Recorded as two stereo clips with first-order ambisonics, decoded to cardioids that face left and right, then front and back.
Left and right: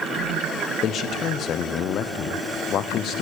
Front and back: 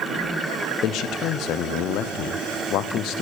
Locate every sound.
0.8 s a man speaking: 35° left, 0.7 m